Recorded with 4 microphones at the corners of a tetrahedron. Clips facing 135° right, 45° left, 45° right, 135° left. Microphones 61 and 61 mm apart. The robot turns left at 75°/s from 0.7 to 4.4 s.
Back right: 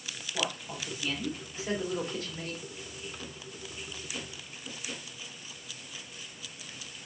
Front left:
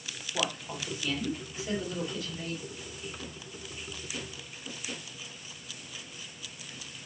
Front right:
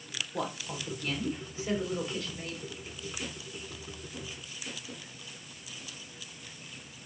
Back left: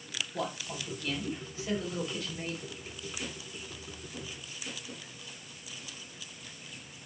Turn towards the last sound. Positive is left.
turn(degrees=55)